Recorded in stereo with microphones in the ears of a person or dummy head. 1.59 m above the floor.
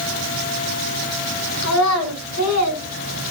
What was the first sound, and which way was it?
A child speaking, 75° left (ahead or behind).